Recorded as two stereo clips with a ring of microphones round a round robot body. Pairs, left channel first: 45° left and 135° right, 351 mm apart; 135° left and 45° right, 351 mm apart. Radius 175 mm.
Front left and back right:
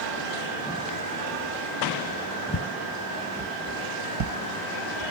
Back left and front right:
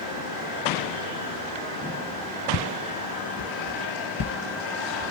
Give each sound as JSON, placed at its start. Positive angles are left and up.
{"t": 2.5, "sound": "footsteps", "azimuth_deg": 90, "distance_m": 1.2}